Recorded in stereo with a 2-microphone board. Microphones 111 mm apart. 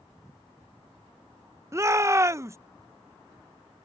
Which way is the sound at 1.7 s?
25° right (ahead or behind).